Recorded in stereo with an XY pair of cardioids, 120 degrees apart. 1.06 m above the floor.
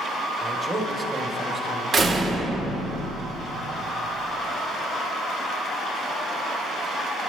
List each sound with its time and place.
0.4 s a man speaking: 25° right, 2.5 m
1.9 s a door slam: 40° right, 1.8 m